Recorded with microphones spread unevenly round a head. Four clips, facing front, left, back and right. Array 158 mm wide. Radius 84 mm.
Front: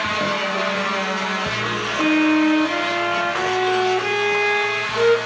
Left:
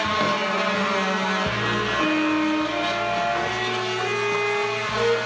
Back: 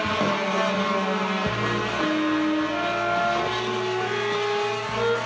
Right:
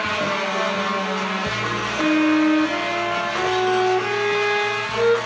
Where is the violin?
35° right, 1.8 m.